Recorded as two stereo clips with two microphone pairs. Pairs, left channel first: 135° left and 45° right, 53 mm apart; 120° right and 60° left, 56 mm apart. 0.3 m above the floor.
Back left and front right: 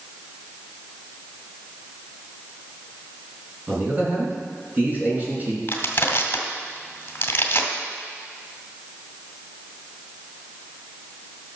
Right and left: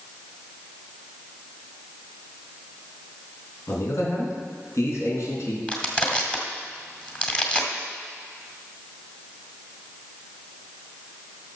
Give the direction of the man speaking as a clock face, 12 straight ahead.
3 o'clock.